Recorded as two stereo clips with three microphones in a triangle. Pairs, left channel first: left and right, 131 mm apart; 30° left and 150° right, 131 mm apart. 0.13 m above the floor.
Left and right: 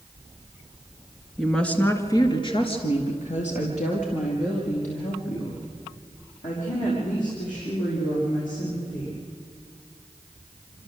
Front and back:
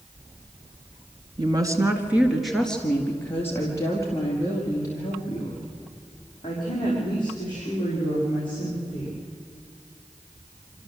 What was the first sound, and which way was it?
A woman speaking, 175° right.